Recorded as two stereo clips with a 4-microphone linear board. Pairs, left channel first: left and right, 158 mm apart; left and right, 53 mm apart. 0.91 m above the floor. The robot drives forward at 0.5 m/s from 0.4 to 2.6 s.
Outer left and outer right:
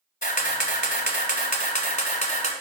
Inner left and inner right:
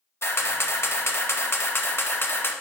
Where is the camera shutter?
60° left (ahead or behind), 1.4 m; by 2.5 s 50° left (ahead or behind), 1.6 m.